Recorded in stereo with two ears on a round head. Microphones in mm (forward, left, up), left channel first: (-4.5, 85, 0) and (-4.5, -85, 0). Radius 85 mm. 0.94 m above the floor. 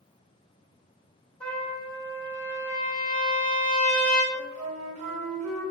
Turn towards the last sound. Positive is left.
turn(degrees=-40)  # may be behind; listen again after turning